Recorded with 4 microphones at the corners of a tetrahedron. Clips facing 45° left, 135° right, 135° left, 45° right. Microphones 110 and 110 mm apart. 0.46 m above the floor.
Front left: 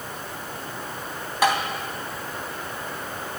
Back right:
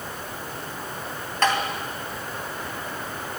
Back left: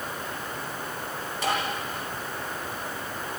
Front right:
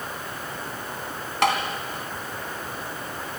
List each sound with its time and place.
1.4 s tapping: 35° right, 2.5 m